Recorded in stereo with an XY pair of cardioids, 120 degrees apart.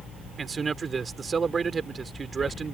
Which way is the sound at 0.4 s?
30° right.